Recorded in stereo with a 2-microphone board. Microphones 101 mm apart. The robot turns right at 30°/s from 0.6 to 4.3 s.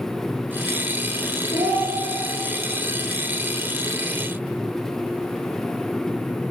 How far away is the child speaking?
About 2.5 m.